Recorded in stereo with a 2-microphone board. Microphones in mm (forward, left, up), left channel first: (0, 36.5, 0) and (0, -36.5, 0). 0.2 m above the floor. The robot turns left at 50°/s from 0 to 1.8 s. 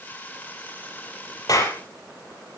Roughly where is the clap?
Left.